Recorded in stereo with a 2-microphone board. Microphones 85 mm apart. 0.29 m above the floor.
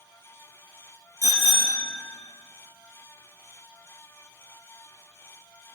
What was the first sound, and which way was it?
A bicycle bell, 35° right (ahead or behind).